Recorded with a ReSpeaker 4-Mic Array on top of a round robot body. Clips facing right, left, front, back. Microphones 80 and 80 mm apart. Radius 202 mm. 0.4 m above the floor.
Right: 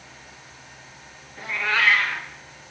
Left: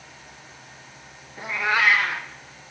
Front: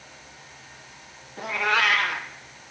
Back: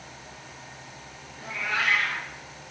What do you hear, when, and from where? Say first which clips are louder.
1.4 s a cat meowing: left 1 dB, front 6 dB; 15° left, 0.6 m